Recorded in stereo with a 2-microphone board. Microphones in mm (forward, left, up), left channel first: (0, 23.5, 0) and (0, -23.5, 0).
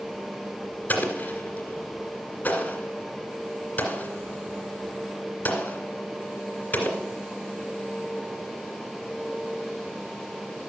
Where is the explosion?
35° left (ahead or behind), 2 m.